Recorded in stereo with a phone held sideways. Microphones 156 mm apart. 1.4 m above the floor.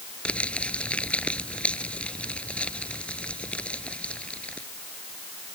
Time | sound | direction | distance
0.2 | crumpling | 5° left (ahead or behind) | ?